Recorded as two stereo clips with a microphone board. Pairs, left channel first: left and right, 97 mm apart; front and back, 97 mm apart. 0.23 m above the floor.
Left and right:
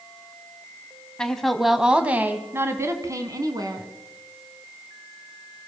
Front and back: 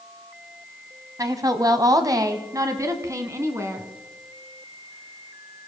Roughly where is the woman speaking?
Behind.